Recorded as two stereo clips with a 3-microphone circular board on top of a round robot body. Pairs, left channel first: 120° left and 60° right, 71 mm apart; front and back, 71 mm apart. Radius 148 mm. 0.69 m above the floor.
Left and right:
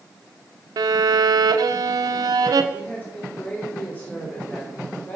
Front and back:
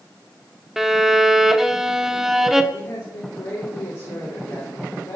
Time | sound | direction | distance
0.8 | a violin | 95° right | 0.9 m
2.7 | a man speaking | 50° left | 3.5 m